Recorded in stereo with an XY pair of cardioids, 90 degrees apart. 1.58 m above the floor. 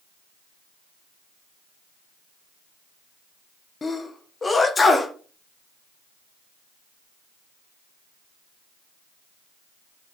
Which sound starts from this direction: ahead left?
A sneeze, at 3.8 s.